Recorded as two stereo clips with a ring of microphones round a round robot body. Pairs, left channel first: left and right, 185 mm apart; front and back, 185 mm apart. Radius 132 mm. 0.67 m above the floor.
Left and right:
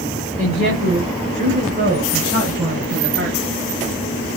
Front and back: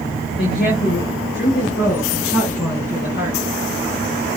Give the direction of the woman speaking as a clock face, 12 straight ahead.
2 o'clock.